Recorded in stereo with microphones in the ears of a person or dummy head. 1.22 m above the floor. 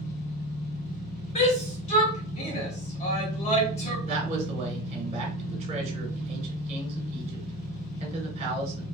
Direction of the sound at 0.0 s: 50° left (ahead or behind).